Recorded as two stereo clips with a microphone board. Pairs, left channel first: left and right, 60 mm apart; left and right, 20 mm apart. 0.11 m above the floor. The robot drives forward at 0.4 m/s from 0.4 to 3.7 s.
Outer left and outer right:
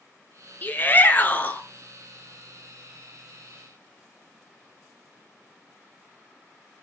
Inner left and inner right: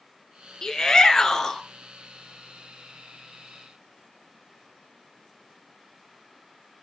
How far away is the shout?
About 1.3 m.